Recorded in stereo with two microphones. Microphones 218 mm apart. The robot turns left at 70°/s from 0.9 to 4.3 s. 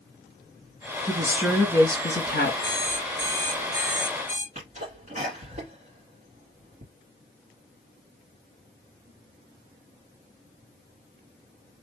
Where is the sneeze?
40° right (ahead or behind), 1.7 m.